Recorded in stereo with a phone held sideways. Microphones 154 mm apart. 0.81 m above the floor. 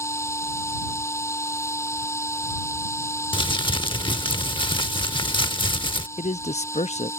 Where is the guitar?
I don't hear a guitar.